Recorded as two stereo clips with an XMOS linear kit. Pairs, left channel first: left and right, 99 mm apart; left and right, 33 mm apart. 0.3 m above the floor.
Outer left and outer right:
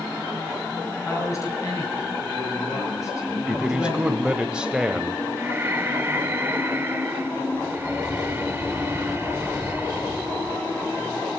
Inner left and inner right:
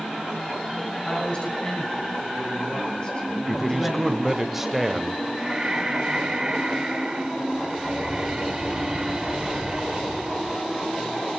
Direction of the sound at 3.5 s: 10° right (ahead or behind).